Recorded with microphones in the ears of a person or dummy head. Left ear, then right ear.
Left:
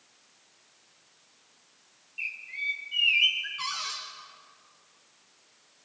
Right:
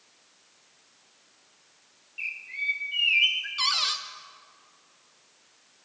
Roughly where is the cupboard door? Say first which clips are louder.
Right 8 dB; centre.